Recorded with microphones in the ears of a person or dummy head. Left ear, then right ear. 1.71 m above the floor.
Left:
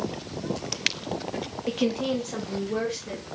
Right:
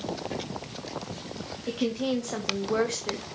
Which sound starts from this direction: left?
A woman speaking, at 1.7 s.